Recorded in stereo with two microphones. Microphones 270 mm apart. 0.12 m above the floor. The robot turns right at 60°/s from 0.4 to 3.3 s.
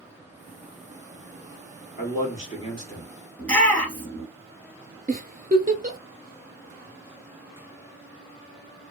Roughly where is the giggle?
Right.